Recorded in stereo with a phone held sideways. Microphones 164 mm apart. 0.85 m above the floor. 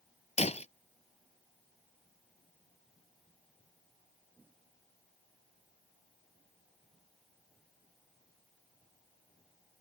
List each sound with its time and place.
0.4 s breaking glass: 40° left (ahead or behind)